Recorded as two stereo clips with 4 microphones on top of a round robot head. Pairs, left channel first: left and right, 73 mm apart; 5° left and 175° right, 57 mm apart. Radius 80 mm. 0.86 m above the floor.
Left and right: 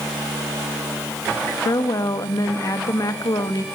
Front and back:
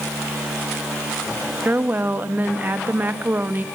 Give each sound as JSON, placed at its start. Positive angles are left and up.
{"t": 1.6, "sound": "a woman speaking", "azimuth_deg": 130, "distance_m": 1.2}